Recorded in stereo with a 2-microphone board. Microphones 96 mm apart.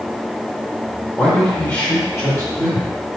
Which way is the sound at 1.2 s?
20° left (ahead or behind).